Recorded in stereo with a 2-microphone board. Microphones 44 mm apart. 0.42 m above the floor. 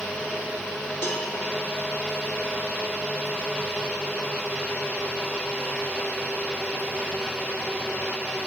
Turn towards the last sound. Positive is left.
turn(degrees=75)  # may be behind; listen again after turning